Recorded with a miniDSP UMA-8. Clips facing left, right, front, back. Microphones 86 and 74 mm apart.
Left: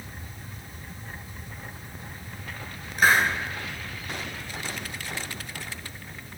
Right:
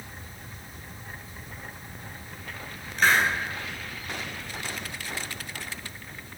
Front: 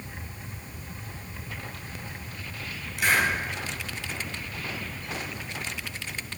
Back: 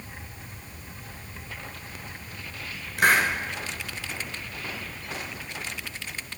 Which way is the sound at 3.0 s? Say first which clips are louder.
Left 1 dB, back 3 dB; 170° left.